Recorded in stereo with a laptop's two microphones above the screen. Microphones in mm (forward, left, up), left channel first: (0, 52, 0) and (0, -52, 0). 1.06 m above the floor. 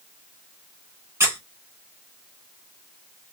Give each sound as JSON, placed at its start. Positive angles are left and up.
{"t": 1.2, "sound": "a squeak", "side_deg": -25, "distance_m": 0.7}